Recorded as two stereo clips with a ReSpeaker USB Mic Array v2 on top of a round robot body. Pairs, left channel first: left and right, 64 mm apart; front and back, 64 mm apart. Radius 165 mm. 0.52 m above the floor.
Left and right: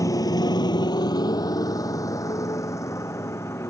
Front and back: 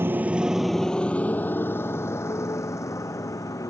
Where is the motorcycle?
125° left; by 3.7 s 40° left.